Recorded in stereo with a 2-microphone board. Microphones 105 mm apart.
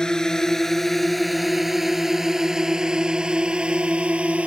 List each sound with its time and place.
0.0 s a drone: 5° left (ahead or behind); by 4.5 s 10° right (ahead or behind)